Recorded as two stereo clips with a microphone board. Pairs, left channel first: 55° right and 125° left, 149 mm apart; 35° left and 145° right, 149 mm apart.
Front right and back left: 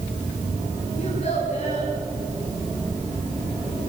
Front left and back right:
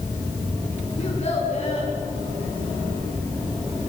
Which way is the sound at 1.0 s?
20° right.